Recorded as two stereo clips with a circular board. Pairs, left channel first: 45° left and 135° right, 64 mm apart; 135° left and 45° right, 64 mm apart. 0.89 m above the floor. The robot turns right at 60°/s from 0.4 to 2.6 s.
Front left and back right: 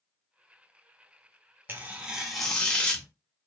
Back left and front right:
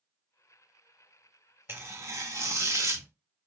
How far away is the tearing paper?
About 0.7 m.